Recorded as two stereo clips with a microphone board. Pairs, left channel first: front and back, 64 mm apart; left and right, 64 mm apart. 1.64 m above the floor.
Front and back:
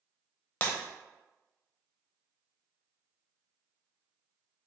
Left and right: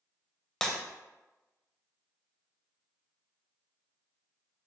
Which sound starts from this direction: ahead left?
Breaking glass, at 0.6 s.